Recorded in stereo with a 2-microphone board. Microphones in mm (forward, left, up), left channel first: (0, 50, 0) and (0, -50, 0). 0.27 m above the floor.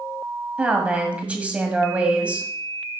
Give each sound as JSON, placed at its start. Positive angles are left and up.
{"t": 0.6, "sound": "a woman speaking", "side_deg": -15, "distance_m": 1.5}